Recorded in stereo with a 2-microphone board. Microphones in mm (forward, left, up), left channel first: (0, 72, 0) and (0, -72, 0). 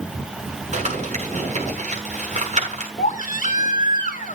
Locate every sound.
0.7 s crumpling: 55° right (ahead or behind), 7 m
3.0 s a baby crying: 70° left (ahead or behind), 1.9 m